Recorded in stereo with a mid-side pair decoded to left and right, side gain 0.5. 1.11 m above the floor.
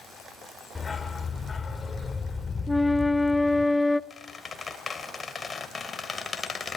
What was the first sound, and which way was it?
A dog barking, 25° left.